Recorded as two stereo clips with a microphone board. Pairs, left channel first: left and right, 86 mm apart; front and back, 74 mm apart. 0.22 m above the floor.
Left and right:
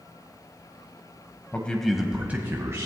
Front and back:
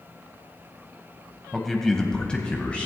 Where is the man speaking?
90° left, 1.2 m; by 2.9 s 65° right, 1.6 m.